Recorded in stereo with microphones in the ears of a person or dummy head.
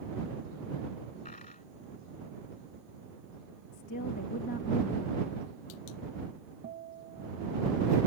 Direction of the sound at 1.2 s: 35° left (ahead or behind).